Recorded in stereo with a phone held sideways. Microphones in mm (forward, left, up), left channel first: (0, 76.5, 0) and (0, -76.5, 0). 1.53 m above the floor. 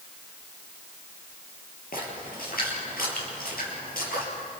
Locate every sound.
1.9 s a splash: 75° left (ahead or behind), 6 m